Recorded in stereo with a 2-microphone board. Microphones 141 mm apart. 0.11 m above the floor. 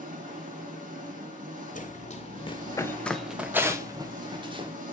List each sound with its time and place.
0.0 s an engine running: 75° right (ahead or behind), 4.5 m
1.8 s running footsteps: 65° left (ahead or behind), 1.3 m; by 4.7 s 40° right (ahead or behind), 2.0 m